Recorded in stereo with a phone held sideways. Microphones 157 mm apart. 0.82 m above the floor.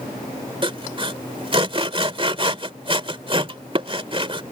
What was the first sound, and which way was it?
Sawing, 40° right (ahead or behind).